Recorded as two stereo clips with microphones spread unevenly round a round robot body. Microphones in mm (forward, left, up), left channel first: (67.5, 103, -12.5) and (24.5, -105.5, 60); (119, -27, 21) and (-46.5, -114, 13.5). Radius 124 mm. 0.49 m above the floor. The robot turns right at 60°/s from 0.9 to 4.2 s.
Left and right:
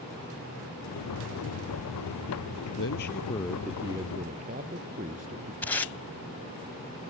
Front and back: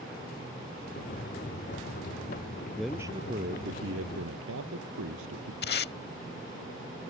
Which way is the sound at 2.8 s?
110° left.